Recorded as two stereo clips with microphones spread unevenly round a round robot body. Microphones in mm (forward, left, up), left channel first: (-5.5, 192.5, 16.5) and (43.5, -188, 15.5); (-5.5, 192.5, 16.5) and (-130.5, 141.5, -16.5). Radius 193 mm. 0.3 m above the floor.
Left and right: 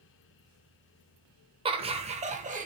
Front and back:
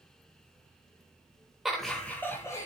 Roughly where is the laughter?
Behind right.